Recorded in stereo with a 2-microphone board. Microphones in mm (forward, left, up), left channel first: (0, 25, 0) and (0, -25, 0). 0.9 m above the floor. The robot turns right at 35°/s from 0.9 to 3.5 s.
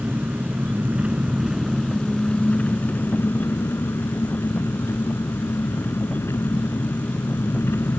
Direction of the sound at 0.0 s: 30° right.